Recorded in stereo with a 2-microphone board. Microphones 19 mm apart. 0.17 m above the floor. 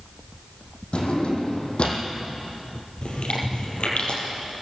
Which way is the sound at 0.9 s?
65° left (ahead or behind).